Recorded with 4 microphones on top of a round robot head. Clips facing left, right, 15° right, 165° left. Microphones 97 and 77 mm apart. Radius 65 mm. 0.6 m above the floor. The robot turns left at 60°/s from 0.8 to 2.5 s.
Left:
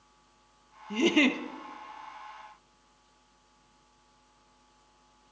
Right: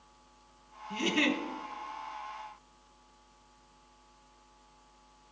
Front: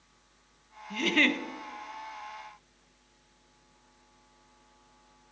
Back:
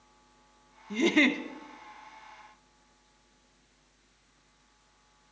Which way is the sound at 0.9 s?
115° left.